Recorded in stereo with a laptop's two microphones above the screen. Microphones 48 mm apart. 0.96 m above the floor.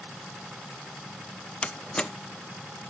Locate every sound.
1.6 s a door slam: 20° left (ahead or behind), 0.6 m